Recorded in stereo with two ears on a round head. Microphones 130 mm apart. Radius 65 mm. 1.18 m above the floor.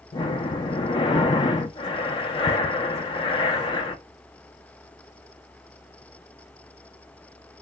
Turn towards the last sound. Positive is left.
turn(degrees=35)  # may be behind; listen again after turning